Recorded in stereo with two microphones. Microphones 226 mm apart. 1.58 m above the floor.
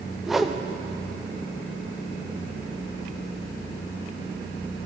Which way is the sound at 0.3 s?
Centre (ahead or behind).